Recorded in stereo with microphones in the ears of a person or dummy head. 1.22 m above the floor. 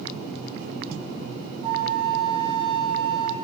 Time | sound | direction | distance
1.6 | a flute | 35° right (ahead or behind) | 1.3 m